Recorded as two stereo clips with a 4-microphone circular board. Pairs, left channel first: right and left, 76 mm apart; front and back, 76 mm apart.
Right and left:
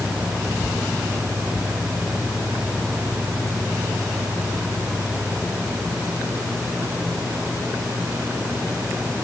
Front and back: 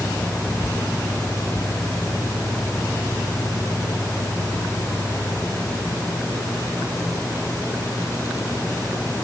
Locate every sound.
Only background noise.